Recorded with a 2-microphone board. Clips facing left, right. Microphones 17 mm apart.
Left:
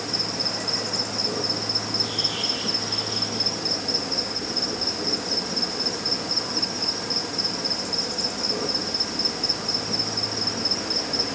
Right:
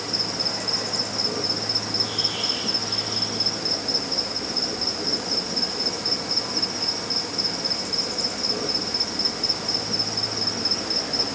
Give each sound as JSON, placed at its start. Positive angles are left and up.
{"t": 0.0, "sound": "an insect", "side_deg": 0, "distance_m": 1.6}